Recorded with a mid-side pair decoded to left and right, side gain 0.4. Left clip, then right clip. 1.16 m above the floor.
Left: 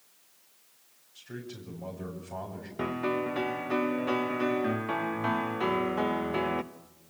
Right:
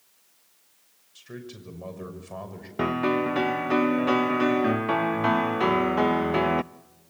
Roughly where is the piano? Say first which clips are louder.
Right 6 dB; ahead right.